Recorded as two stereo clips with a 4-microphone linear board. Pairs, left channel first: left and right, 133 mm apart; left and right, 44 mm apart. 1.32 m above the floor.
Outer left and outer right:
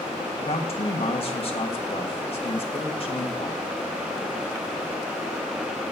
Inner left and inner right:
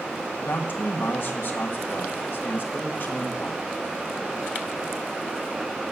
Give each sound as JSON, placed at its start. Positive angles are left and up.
{"t": 0.4, "sound": "a man speaking", "side_deg": 45, "distance_m": 1.5}